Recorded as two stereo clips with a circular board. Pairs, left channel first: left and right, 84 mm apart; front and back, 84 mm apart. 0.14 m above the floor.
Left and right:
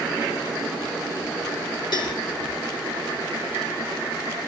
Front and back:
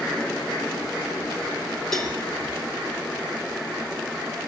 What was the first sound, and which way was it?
A cowbell, 85° left.